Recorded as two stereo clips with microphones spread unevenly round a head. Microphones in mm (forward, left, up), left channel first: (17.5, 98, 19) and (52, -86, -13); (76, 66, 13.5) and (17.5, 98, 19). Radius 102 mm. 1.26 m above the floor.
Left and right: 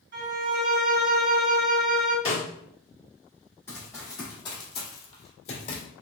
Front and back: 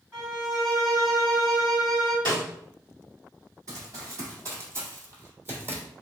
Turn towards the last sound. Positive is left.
turn(degrees=105)